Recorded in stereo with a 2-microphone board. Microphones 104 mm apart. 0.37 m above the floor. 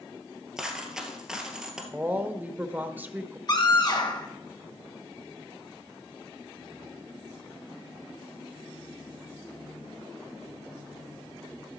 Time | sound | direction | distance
0.6 | a dropped coin | 5° right (ahead or behind) | 1.7 m
1.9 | a woman speaking | 15° right (ahead or behind) | 0.8 m
3.5 | a scream | 45° left (ahead or behind) | 1.9 m